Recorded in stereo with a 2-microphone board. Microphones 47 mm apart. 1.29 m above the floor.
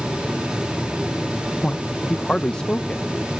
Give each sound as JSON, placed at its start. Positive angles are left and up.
{"t": 1.6, "sound": "a man speaking", "side_deg": 20}